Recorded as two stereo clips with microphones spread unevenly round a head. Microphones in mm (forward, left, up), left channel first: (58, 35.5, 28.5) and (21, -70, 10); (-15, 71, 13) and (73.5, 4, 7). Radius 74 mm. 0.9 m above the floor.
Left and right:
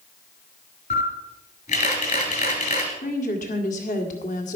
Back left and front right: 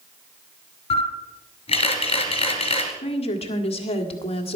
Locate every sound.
0.9 s a camera shutter: 110° left, 2.5 m
3.0 s a woman speaking: 110° left, 1.8 m